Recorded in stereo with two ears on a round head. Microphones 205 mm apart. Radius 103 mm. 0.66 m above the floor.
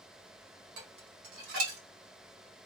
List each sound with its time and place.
0.8 s dishes clattering: 65° right (ahead or behind), 1.8 m